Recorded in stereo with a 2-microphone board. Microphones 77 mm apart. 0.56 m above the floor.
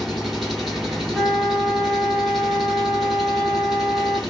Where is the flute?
5° right (ahead or behind), 0.8 m.